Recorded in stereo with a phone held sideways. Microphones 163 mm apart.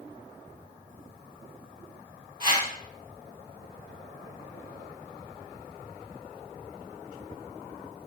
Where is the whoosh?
55° right (ahead or behind), 1.5 m.